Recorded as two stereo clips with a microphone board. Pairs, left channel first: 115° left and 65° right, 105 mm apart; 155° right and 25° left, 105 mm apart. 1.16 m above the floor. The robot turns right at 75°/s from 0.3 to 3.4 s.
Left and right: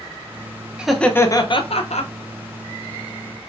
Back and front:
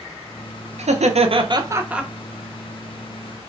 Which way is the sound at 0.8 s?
15° left.